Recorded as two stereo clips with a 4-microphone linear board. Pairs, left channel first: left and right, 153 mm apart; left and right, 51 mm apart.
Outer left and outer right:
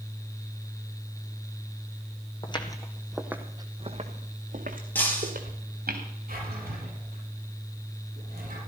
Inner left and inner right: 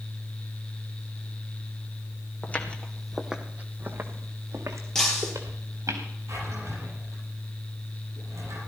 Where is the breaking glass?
10° left (ahead or behind), 4 m.